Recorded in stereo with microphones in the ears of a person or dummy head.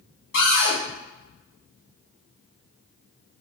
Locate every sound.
0.3 s a cupboard door: 50° left (ahead or behind), 1.6 m